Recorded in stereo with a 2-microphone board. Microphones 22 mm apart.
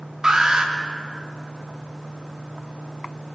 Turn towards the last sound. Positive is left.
turn(degrees=-35)  # may be behind; listen again after turning